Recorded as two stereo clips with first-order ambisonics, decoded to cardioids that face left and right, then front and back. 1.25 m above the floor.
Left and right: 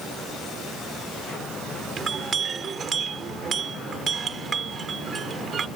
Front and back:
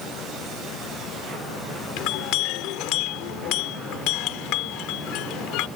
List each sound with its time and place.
2.0 s a clink: 25° right